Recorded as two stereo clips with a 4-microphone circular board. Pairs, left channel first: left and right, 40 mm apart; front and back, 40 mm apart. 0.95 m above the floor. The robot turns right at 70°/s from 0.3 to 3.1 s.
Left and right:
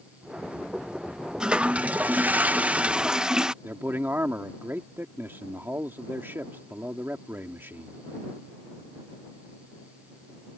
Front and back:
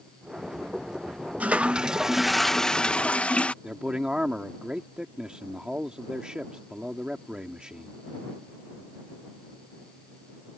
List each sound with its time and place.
1.4 s a toilet flushing: 150° right; by 3.5 s 30° right
3.6 s a man speaking: 110° right